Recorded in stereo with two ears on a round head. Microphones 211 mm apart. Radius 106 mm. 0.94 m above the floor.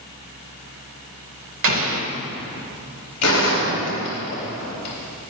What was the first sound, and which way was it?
An explosion, 60° right (ahead or behind).